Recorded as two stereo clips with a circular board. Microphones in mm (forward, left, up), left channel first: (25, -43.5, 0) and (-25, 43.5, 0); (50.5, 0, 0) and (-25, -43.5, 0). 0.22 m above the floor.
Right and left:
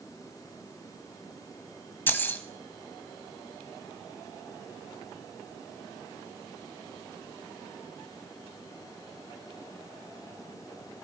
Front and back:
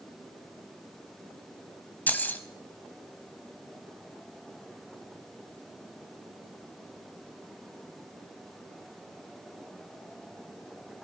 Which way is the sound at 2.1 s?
15° right.